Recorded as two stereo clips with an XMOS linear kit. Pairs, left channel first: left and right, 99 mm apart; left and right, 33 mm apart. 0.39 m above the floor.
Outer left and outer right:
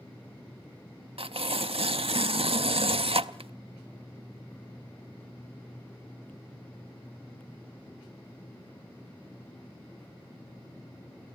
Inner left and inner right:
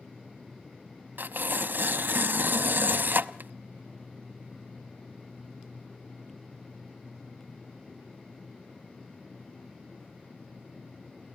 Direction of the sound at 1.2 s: 75° right (ahead or behind).